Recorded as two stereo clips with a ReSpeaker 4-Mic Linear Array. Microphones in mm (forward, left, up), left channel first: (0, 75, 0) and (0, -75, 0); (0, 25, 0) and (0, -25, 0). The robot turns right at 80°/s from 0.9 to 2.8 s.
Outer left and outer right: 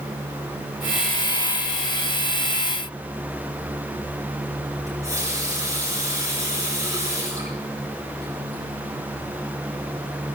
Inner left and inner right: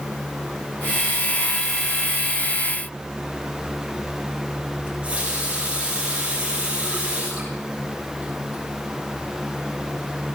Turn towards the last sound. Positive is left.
turn(degrees=-25)  # may be behind; listen again after turning